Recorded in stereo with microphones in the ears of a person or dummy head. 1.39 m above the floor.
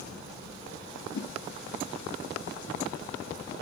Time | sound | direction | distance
1.1 | a whoosh | 70° left (ahead or behind) | 1.7 m